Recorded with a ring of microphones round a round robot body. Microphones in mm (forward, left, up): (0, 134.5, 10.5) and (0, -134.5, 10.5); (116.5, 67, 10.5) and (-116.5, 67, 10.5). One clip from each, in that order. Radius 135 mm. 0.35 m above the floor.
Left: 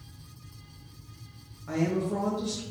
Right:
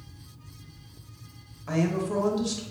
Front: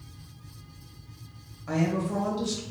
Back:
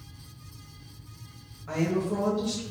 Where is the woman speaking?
55° right, 1.3 m.